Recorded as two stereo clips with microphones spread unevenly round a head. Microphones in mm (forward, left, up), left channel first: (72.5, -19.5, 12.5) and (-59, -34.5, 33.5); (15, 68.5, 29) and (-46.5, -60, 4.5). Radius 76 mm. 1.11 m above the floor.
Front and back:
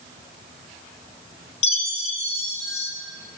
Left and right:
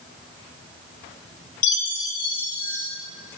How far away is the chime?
About 1.5 m.